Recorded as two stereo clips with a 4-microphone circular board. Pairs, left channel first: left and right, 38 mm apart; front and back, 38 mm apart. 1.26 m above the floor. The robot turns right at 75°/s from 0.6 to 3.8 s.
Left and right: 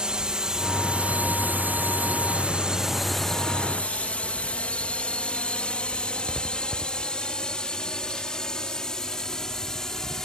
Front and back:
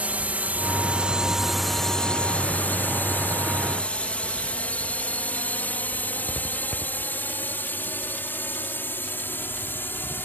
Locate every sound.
0.0 s a drone: 145° right; by 10.2 s 20° left